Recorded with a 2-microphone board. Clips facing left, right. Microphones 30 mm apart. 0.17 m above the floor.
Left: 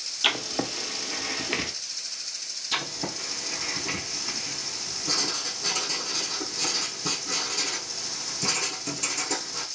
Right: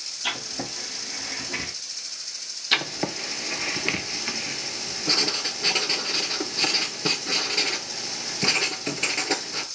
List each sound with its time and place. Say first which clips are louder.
0.2 s writing: left 5 dB; 70° left (ahead or behind), 0.8 m
2.7 s writing: right 6 dB; 50° right (ahead or behind), 0.6 m